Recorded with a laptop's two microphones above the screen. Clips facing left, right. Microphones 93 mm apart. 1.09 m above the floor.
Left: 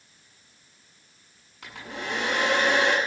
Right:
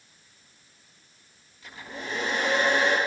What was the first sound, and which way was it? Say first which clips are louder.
A hair dryer: left 3 dB; 75° left (ahead or behind).